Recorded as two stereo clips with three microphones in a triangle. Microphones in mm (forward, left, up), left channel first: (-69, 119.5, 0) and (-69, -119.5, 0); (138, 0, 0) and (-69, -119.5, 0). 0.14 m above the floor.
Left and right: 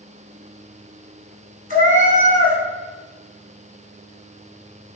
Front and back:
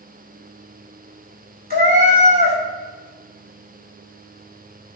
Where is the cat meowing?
125° right, 0.6 m.